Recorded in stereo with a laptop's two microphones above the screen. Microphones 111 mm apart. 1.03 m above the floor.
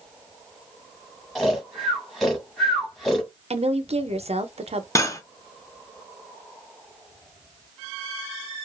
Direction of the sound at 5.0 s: 30° left (ahead or behind).